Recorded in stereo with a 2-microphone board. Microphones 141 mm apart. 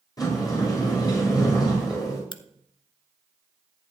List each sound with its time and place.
0.2 s a sliding door: 30° left (ahead or behind), 5 m
2.3 s a crack: 35° left (ahead or behind), 0.9 m